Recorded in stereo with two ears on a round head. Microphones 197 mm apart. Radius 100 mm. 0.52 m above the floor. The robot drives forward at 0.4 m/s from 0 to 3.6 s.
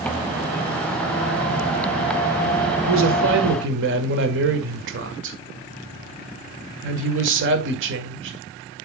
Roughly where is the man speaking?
Right.